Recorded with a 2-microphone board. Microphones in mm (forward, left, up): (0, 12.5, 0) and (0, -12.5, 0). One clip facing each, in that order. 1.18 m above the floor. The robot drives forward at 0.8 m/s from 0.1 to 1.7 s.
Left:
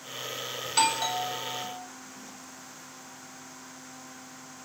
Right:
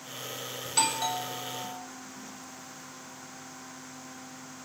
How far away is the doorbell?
About 0.5 m.